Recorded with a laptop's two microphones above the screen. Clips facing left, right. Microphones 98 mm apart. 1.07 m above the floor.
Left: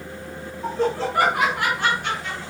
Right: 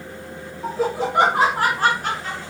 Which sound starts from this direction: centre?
Laughter, at 0.6 s.